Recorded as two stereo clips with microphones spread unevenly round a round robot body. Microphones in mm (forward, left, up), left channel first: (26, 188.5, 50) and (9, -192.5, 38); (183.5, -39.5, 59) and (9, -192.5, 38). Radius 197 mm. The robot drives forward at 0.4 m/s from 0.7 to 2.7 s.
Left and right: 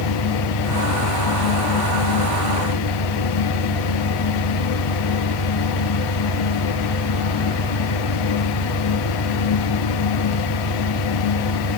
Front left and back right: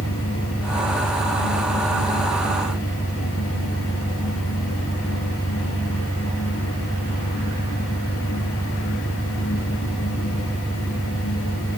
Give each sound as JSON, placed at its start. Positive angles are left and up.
{"t": 0.0, "sound": "an engine running", "azimuth_deg": 125}